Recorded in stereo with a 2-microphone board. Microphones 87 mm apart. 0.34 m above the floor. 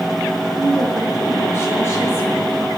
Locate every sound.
0.5 s a woman speaking: 30° left (ahead or behind), 5.5 m; by 2.7 s 35° left (ahead or behind), 8.5 m